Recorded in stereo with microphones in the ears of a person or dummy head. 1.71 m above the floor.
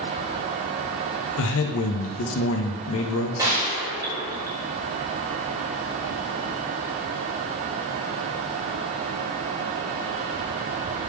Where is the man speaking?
70° left (ahead or behind), 0.6 m.